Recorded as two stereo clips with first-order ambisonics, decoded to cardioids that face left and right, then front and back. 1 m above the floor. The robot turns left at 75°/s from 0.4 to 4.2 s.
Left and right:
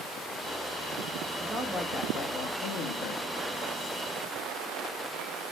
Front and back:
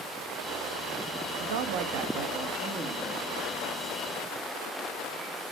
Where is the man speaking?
160° right, 1.0 m; by 3.2 s 60° left, 1.0 m.